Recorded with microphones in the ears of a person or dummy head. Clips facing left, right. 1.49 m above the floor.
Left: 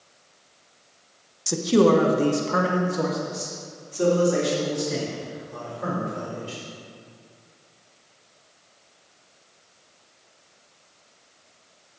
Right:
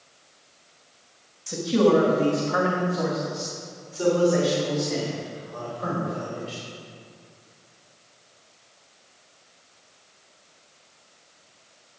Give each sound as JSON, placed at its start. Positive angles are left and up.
{"t": 1.5, "sound": "a man speaking", "side_deg": 70, "distance_m": 1.1}